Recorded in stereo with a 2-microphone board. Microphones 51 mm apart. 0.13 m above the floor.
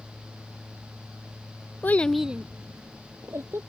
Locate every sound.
1.8 s a child speaking: 40° left (ahead or behind); by 3.6 s 60° right (ahead or behind)